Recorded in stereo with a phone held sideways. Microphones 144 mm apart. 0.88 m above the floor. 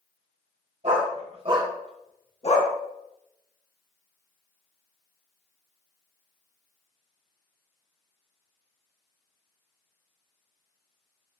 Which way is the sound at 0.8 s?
65° right (ahead or behind).